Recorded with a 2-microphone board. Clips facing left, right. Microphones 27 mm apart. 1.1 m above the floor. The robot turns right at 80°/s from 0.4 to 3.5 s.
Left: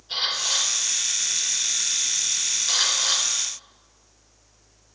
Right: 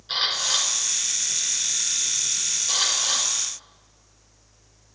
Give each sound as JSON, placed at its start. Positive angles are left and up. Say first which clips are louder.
{"t": 0.1, "sound": "a camera shutter", "louder": "right 1 dB", "side_deg": -55, "distance_m": 3.5}